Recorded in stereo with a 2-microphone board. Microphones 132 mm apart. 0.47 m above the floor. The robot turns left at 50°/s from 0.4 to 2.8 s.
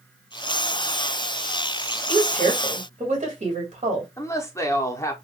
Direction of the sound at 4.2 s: 20° left (ahead or behind).